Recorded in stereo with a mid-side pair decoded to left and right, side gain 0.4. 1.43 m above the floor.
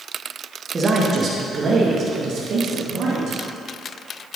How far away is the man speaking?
About 2.0 m.